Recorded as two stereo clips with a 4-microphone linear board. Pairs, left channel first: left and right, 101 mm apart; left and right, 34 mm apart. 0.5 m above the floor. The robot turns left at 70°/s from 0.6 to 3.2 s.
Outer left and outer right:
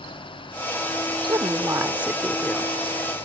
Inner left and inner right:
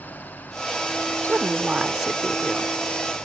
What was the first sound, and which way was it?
A woman speaking, 110° right.